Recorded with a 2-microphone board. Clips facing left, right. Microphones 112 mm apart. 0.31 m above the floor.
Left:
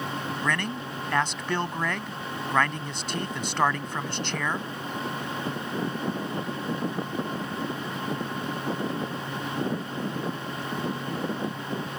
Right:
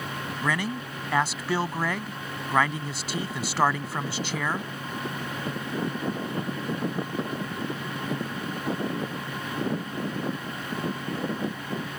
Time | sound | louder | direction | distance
0.4 | a man speaking | right 3 dB | 5° right (ahead or behind) | ?